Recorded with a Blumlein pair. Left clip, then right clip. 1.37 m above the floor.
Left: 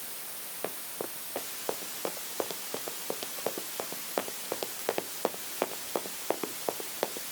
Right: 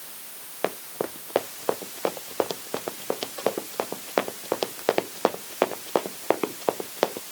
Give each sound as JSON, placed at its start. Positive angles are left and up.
{"t": 0.6, "sound": "running footsteps", "azimuth_deg": -25}